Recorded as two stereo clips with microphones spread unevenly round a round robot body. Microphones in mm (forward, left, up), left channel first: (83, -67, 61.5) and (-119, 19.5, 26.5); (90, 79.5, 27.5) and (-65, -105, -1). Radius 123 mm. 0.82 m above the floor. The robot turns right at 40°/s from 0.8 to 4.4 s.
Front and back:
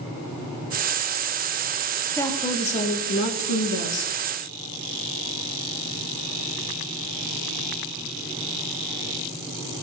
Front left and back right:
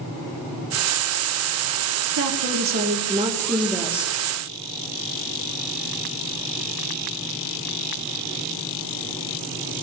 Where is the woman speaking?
105° right, 2.0 m; by 4.1 s 25° right, 2.0 m.